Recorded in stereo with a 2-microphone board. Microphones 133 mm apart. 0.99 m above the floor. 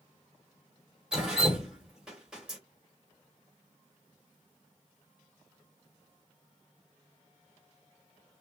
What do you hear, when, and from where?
1.1 s dripping: 5° right (ahead or behind), 1.5 m